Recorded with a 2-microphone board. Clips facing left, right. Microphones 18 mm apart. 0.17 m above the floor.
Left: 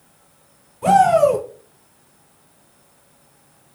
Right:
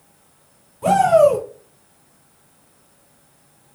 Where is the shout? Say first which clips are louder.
Even; 10° left (ahead or behind), 1.3 m.